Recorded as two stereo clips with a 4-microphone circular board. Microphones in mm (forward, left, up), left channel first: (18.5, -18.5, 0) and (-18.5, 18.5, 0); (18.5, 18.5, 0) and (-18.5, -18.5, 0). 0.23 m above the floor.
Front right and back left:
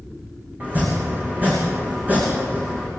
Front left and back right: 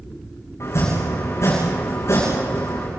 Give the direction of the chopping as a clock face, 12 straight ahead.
9 o'clock.